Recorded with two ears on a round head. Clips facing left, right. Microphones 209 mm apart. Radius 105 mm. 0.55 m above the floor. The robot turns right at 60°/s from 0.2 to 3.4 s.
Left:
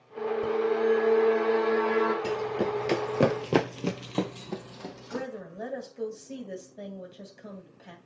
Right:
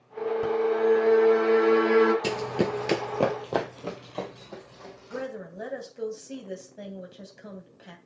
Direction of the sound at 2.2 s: 50° right (ahead or behind).